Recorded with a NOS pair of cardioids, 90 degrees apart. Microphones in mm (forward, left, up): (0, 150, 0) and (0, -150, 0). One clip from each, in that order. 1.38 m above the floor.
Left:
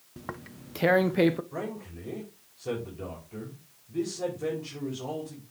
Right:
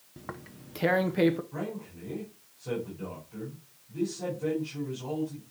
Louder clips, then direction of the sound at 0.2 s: Left 2 dB; 15° left.